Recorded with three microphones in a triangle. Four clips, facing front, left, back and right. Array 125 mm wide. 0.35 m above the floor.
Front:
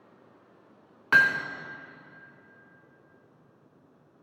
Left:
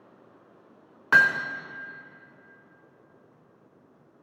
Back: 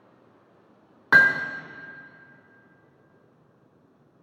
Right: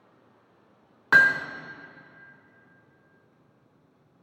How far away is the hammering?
About 0.6 m.